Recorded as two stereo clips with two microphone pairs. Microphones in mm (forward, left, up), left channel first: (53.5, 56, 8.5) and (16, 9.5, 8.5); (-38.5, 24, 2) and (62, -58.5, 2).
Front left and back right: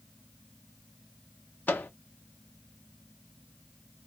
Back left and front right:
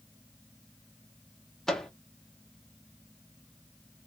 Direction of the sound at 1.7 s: 55° left.